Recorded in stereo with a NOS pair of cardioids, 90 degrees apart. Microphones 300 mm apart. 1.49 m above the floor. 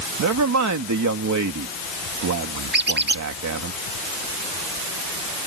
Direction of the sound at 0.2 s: 70° right.